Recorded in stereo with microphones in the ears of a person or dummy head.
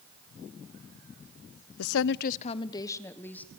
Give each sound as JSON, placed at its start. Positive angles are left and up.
{"t": 1.8, "sound": "a woman speaking", "side_deg": 85, "distance_m": 0.5}